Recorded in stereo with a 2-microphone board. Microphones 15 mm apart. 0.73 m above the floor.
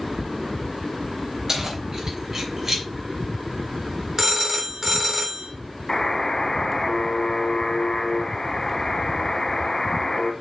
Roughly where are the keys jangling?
Right.